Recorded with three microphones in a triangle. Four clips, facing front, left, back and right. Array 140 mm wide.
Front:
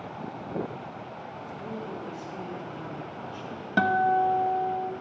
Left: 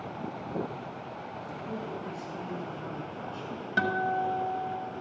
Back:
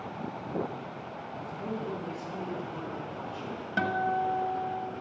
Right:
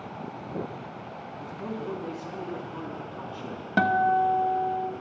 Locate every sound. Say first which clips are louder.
1.4 s a man speaking: right 4 dB, back 2 dB; 110° right, 6.5 m
3.8 s a guitar: right 7 dB, front 6 dB; 55° right, 1.2 m